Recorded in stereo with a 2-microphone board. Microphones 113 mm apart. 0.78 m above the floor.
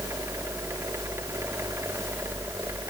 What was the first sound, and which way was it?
Only background noise.